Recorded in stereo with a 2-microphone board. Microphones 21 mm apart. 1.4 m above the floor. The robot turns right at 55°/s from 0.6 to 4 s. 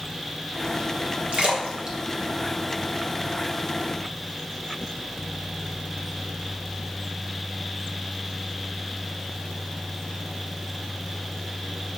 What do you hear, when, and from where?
1.3 s a splash: 55° right (ahead or behind), 1.5 m; by 3.4 s 35° left (ahead or behind), 1.5 m